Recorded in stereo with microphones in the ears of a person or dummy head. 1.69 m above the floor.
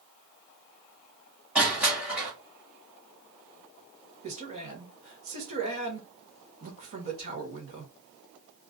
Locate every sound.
1.6 s crushing: 5° right (ahead or behind), 0.6 m
4.2 s a man speaking: 50° right (ahead or behind), 1.0 m